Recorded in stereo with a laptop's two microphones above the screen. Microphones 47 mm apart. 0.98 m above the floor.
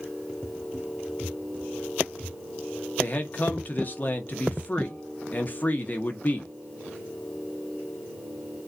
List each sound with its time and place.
3.0 s a man speaking: 40° left (ahead or behind), 0.8 m